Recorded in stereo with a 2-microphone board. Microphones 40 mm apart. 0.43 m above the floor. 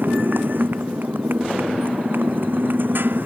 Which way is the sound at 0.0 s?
55° right (ahead or behind).